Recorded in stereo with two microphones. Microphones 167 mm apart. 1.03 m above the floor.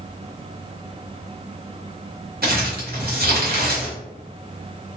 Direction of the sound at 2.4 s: 70° right (ahead or behind).